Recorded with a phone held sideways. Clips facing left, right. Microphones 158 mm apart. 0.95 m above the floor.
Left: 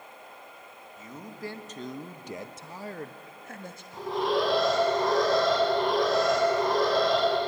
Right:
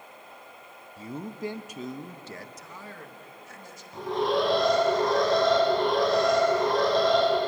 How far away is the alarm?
About 6 m.